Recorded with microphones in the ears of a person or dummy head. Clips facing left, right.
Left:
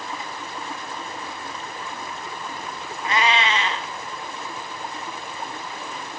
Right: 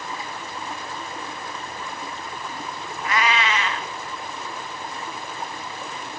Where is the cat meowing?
30° left (ahead or behind), 1.2 m.